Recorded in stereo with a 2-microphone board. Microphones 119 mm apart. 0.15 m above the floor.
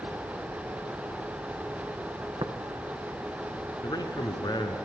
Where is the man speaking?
35° left (ahead or behind), 1.6 m.